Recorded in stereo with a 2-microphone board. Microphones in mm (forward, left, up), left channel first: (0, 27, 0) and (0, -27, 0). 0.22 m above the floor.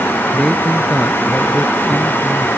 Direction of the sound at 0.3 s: 15° left (ahead or behind).